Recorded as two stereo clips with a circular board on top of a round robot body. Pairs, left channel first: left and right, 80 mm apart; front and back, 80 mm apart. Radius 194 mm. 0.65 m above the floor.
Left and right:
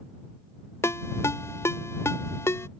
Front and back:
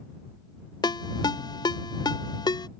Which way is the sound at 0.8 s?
30° left.